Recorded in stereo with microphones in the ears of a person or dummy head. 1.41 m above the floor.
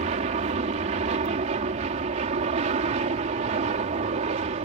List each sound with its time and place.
0.0 s an aircraft: 30° right (ahead or behind)